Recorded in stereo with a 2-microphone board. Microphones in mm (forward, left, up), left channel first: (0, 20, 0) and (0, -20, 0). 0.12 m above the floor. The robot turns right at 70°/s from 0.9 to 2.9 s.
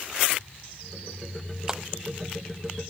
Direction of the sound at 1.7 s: 20° right (ahead or behind).